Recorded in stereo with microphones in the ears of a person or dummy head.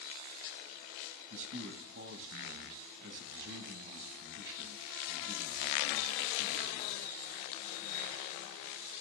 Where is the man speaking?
60° right (ahead or behind), 1.2 m.